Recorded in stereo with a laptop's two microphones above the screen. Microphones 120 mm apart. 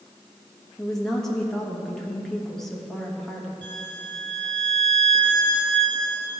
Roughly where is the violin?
Right.